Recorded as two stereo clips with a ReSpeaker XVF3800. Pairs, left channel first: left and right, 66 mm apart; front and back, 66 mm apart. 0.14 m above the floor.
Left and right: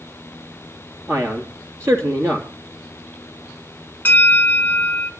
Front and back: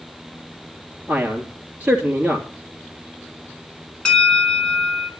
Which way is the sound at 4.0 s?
60° left.